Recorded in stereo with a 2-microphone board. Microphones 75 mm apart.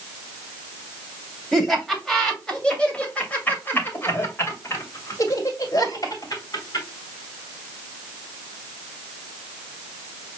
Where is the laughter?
Centre (ahead or behind), 2.5 m; by 6.9 s 55° left (ahead or behind), 2.5 m.